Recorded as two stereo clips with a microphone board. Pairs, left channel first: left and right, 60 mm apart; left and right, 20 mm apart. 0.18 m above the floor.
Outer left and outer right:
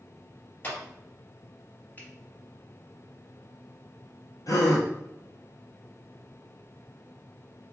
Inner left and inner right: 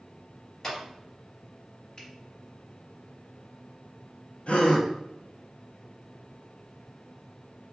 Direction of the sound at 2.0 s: 30° left (ahead or behind).